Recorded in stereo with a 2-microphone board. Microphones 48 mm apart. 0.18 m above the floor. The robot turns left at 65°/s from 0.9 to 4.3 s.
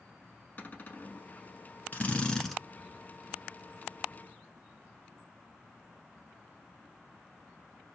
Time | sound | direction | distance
0.6 | a cupboard door | 35° left (ahead or behind) | 0.8 m
1.9 | a drill | 45° left | 1.0 m